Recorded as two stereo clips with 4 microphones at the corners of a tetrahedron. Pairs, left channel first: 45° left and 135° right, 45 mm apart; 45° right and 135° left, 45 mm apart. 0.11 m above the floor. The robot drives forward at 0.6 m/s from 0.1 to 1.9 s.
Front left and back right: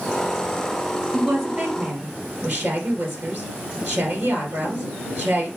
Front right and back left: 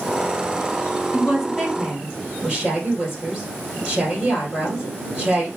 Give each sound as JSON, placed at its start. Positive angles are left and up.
{"t": 1.1, "sound": "a woman speaking", "azimuth_deg": -150, "distance_m": 2.0}